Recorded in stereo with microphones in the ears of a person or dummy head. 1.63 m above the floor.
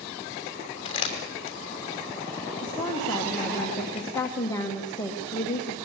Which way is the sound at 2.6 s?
20° left (ahead or behind).